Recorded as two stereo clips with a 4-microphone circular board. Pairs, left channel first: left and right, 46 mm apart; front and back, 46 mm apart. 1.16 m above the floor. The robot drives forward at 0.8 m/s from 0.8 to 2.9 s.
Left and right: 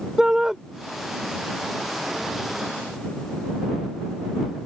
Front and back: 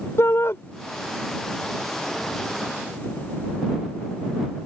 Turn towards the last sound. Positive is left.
turn(degrees=-20)